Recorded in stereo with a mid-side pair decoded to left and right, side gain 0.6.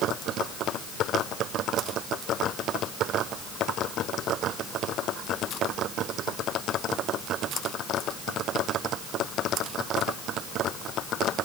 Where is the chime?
I don't hear a chime.